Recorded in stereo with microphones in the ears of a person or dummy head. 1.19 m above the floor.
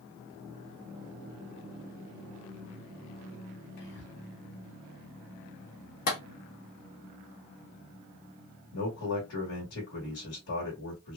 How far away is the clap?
About 1.4 m.